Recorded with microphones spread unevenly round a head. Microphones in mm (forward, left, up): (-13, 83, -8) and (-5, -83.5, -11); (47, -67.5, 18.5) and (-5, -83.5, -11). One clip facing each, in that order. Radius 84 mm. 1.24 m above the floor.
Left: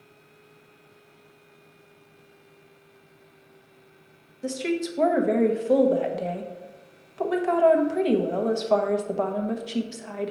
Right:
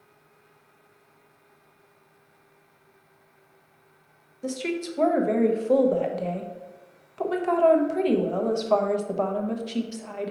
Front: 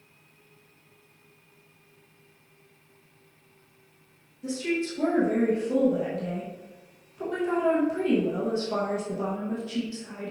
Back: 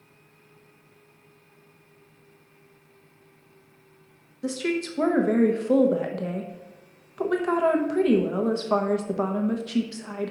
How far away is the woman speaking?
About 0.9 m.